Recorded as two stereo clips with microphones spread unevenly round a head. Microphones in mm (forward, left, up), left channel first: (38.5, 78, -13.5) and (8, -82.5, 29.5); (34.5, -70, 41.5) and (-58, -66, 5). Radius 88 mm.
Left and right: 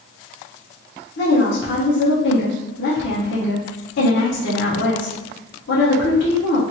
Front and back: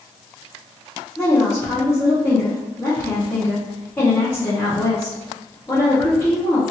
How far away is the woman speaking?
About 0.7 m.